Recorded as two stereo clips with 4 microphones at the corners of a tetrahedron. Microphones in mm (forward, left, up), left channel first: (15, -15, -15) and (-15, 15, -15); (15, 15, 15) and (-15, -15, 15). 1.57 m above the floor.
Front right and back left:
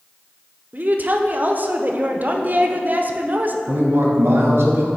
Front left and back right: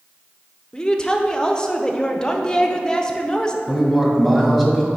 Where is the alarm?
I don't hear an alarm.